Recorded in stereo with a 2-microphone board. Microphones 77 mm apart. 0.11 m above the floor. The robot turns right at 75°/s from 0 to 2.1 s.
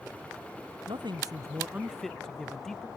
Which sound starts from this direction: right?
A man speaking, at 0.9 s.